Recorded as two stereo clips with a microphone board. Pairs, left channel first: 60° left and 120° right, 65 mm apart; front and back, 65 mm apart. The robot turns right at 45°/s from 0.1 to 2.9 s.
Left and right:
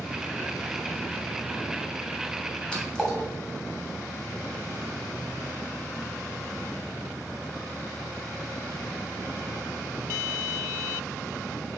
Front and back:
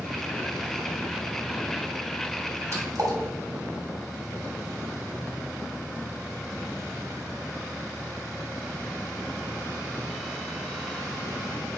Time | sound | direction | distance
2.7 | a splash | 135° left | 2.5 m